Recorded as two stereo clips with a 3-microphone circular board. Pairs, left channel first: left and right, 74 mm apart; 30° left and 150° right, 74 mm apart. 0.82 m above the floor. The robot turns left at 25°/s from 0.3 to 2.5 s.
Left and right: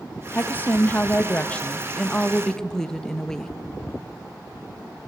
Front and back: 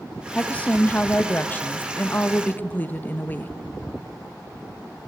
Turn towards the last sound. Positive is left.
turn(degrees=20)